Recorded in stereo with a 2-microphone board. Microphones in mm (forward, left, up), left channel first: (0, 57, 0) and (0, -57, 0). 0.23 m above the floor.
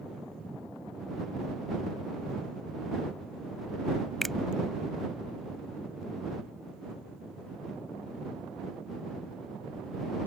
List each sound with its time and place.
4.2 s a finger snap: centre (ahead or behind)